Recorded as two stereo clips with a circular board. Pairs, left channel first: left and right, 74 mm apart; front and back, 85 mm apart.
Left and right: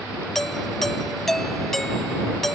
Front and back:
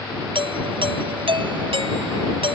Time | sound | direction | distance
0.3 | a doorbell | 175° left | ?